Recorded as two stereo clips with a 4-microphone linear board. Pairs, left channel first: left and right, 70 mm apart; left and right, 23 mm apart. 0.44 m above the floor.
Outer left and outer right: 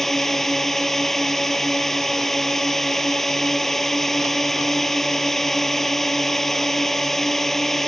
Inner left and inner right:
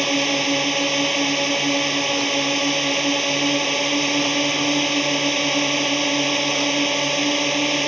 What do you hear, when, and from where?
0.0 s a drone: 5° left (ahead or behind)